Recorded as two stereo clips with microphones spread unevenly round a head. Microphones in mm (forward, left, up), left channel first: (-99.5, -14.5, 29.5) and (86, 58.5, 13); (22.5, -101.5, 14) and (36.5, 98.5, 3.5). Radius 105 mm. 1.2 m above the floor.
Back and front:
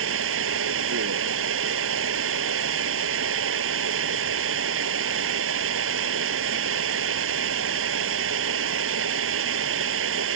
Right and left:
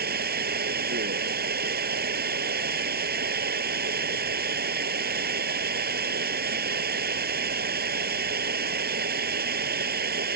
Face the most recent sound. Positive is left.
turn(degrees=45)